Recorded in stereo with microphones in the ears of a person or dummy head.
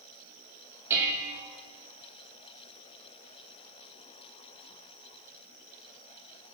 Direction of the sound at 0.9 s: 15° right (ahead or behind).